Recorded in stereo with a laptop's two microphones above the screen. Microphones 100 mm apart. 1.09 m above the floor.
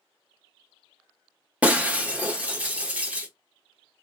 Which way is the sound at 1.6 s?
15° right (ahead or behind).